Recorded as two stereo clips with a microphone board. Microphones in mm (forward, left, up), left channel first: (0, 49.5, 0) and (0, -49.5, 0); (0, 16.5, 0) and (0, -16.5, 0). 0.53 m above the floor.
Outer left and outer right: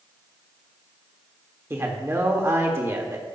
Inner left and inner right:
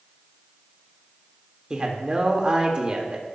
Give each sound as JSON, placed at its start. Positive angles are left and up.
{"t": 1.7, "sound": "a man speaking", "side_deg": -25, "distance_m": 1.4}